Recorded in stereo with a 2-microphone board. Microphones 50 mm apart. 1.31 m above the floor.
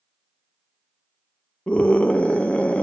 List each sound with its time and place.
1.7 s a scream: 25° left (ahead or behind), 0.8 m